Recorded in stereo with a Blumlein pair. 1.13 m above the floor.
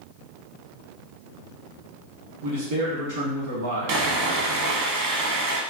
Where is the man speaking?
65° right, 1.2 m.